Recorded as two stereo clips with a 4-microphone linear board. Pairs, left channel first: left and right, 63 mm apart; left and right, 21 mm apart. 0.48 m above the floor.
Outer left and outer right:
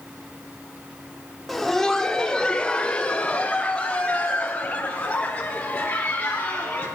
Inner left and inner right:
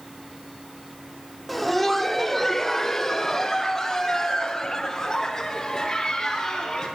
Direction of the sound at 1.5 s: Centre (ahead or behind).